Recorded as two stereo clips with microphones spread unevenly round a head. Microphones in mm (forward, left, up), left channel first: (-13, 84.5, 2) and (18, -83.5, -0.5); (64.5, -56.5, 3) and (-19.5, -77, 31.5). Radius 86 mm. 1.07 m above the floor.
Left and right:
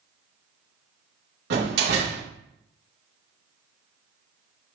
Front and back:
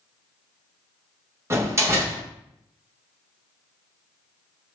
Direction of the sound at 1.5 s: 110° right.